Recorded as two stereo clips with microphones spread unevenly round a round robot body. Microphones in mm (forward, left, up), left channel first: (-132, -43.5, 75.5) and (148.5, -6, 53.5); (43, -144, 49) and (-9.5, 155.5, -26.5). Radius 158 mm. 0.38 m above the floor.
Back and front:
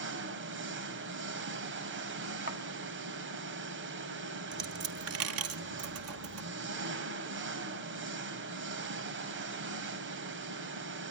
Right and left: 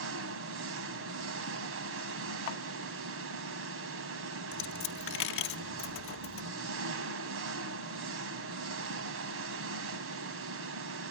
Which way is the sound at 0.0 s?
55° left.